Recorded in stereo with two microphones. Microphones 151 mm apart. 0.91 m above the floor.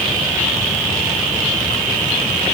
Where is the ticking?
I don't hear ticking.